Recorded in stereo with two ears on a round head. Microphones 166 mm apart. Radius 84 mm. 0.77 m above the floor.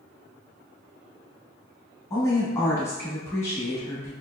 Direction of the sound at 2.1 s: 15° left (ahead or behind).